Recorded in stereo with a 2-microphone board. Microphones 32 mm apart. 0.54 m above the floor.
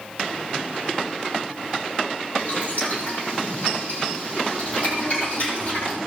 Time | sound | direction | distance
2.4 | boiling | 50° left (ahead or behind) | 9.5 m